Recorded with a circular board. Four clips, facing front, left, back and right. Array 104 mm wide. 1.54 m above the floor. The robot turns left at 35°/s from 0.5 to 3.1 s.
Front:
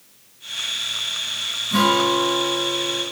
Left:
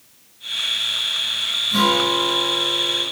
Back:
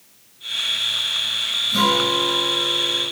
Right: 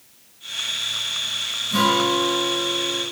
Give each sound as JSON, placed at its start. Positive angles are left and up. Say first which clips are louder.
{"t": 1.7, "sound": "a guitar", "louder": "even, front 2 dB", "azimuth_deg": -15, "distance_m": 2.5}